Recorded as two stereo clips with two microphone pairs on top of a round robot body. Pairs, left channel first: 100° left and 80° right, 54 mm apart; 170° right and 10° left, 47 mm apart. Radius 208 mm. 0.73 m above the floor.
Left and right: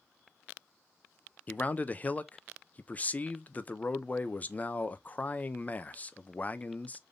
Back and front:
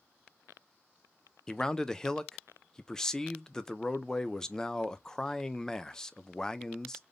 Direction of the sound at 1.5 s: 115° left.